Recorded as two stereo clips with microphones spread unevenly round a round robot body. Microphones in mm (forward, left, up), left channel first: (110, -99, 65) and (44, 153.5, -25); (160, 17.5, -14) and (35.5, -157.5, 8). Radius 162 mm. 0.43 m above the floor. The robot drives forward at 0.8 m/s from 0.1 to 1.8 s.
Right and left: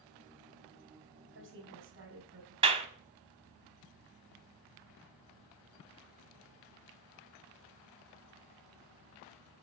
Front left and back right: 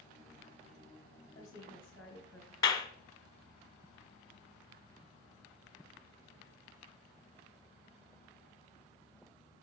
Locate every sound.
1.3 s a woman speaking: 130° left, 2.5 m; by 2.5 s 135° left, 3 m
2.6 s a clap: 110° left, 0.8 m